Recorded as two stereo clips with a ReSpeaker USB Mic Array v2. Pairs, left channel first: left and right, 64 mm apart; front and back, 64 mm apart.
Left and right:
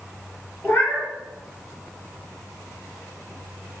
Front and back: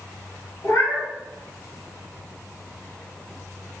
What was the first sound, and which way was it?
A cat meowing, 35° left.